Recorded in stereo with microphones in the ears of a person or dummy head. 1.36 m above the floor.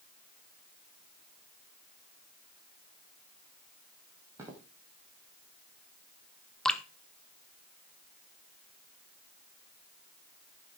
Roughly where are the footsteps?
Centre.